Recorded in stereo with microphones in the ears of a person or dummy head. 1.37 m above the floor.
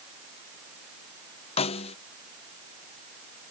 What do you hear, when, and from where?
1.6 s a snare drum: 35° left (ahead or behind)